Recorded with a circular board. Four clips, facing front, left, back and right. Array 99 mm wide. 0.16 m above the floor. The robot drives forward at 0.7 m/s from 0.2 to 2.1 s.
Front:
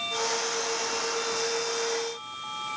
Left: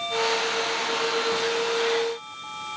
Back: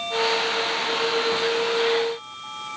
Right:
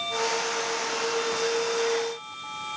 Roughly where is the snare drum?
I don't hear a snare drum.